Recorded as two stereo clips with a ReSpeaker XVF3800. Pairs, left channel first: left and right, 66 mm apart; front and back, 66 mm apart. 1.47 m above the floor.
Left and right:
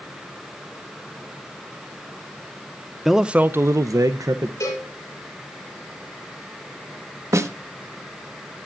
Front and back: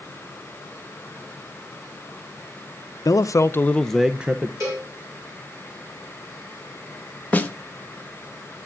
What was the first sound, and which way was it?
A man speaking, 5° right.